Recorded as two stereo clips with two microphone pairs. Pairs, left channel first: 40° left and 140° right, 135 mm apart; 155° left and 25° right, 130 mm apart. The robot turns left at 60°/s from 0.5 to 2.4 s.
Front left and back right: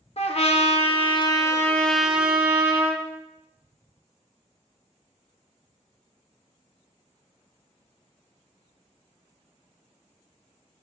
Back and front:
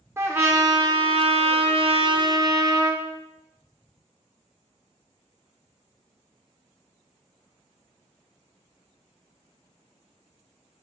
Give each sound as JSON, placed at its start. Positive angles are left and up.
{"t": 0.2, "sound": "a trumpet", "azimuth_deg": 40, "distance_m": 0.7}